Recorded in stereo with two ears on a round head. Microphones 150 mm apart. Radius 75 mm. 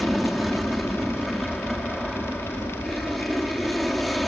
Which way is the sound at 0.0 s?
Centre (ahead or behind).